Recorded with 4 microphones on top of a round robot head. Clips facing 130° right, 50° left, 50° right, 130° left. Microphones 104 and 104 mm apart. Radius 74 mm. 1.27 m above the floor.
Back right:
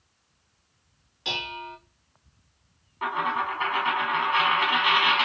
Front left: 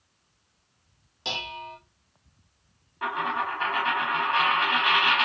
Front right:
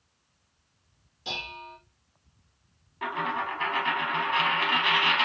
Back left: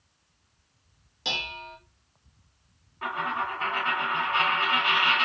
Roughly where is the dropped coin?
Ahead right.